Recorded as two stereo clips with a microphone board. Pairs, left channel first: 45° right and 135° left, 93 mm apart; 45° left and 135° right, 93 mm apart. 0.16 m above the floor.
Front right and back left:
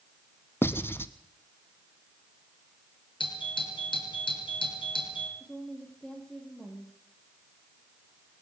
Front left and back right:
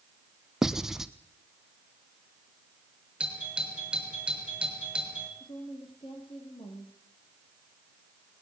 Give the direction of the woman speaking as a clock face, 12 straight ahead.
11 o'clock.